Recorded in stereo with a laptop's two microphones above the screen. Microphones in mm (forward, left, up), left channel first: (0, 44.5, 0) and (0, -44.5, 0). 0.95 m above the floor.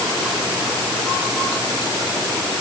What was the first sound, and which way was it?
Only background noise.